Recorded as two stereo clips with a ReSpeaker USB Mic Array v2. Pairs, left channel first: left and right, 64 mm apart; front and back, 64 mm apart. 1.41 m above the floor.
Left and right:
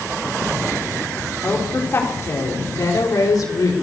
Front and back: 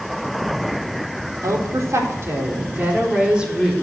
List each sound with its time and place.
1.4 s a woman speaking: 150° left, 4 m; by 3.7 s 95° left, 3.5 m